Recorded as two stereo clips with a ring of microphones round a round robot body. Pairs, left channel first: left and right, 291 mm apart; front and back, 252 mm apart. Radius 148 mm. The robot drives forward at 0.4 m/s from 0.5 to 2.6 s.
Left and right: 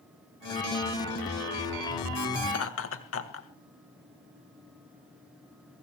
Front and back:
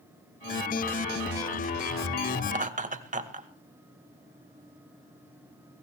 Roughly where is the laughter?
Behind left.